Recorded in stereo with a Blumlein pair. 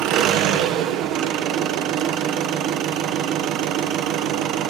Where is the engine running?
40° right, 0.7 m.